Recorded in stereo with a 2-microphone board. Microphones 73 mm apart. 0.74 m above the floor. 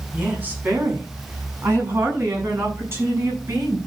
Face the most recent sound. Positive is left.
turn(degrees=-40)  # may be behind; listen again after turning